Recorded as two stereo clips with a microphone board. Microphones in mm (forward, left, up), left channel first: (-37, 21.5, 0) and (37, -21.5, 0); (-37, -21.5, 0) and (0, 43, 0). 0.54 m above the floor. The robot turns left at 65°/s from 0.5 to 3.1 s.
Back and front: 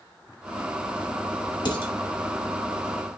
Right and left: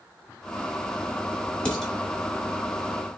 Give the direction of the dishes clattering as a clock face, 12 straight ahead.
6 o'clock.